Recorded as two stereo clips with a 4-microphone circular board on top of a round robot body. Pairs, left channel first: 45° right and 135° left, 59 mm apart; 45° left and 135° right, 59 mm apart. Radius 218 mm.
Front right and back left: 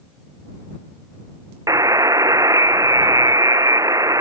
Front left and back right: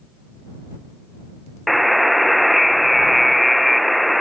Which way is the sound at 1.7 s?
135° left.